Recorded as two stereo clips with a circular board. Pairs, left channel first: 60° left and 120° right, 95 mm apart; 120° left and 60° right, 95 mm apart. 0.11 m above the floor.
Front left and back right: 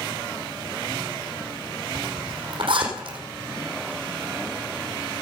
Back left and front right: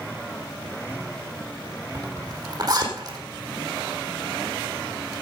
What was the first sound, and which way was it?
A zipper, 105° right.